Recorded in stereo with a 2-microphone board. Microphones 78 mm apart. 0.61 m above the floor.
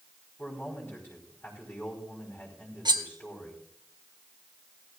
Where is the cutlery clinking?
75° right (ahead or behind), 1.0 m.